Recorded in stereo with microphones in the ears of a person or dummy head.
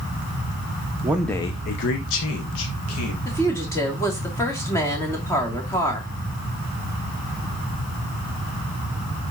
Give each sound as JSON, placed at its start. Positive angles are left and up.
{"t": 1.0, "sound": "a man speaking", "side_deg": -10, "distance_m": 0.9}
{"t": 3.2, "sound": "a woman speaking", "side_deg": 20, "distance_m": 3.0}